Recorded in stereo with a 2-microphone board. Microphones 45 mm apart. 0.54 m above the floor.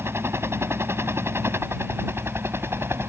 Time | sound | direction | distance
0.0 | a helicopter | 70° right (ahead or behind) | ?